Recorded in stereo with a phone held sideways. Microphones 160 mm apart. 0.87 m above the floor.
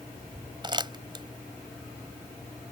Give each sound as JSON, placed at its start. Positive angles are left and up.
{"t": 0.6, "sound": "crumpling", "side_deg": -30}